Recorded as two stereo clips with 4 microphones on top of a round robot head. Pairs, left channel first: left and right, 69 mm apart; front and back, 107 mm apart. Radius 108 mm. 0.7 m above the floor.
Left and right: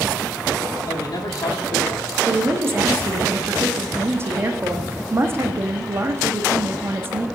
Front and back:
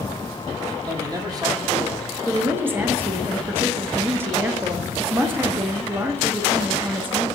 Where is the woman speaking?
120° right, 0.9 m.